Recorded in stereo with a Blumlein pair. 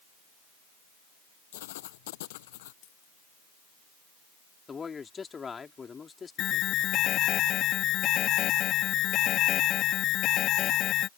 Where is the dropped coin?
40° left.